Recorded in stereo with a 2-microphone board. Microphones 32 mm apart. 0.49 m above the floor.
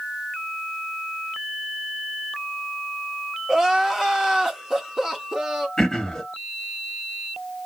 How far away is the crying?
About 0.9 m.